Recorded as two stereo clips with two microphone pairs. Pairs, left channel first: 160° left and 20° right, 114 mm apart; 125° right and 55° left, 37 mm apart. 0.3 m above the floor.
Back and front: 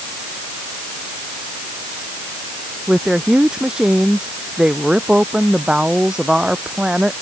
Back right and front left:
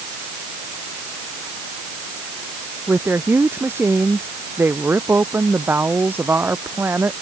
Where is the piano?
No piano in this recording.